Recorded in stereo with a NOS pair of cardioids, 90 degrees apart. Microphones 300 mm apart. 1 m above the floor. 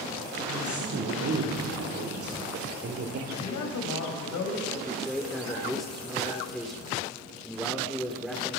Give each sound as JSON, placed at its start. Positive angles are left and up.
{"t": 0.5, "sound": "a woman speaking", "azimuth_deg": -50, "distance_m": 3.5}
{"t": 3.3, "sound": "a man speaking", "azimuth_deg": 70, "distance_m": 5.0}
{"t": 4.8, "sound": "a man speaking", "azimuth_deg": 0, "distance_m": 2.5}